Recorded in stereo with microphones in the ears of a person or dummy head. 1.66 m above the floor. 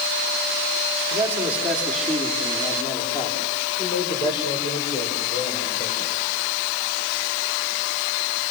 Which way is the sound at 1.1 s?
15° right (ahead or behind).